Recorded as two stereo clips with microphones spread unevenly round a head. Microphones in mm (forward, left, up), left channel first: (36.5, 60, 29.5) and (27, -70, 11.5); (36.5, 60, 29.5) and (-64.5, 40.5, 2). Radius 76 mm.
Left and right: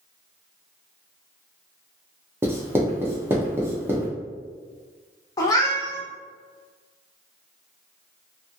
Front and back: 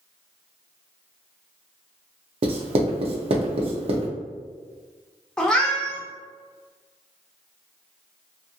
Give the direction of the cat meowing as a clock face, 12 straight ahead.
10 o'clock.